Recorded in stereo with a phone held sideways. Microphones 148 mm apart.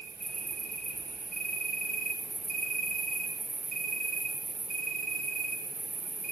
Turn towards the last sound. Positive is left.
turn(degrees=-70)  # may be behind; listen again after turning